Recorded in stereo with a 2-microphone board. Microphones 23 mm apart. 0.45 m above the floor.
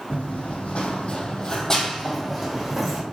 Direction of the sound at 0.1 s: 70° left (ahead or behind).